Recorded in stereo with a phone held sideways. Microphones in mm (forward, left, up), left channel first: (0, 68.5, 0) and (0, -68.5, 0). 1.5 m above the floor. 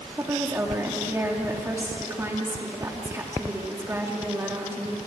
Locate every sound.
0.2 s a woman speaking: 20° right (ahead or behind), 2.5 m